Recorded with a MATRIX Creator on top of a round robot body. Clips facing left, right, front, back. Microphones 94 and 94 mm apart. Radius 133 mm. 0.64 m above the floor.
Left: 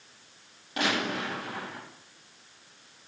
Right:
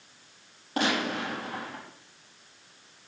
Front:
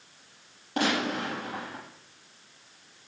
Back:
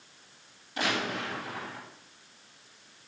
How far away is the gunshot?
About 5 m.